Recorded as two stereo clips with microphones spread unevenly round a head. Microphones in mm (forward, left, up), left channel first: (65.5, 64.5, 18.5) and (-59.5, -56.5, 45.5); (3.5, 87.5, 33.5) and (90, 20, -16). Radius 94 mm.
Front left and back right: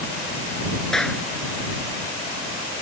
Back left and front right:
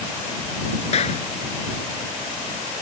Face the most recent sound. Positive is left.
turn(degrees=130)